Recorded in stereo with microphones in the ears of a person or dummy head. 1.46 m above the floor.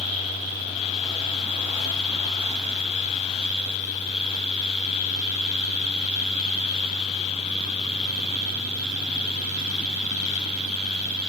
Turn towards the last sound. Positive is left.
No sound to turn to.